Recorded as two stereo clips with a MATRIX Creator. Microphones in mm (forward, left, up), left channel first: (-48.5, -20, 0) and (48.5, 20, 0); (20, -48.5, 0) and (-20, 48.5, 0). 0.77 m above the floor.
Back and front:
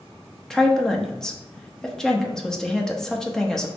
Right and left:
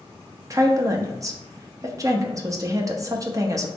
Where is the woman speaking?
125° left, 0.7 m.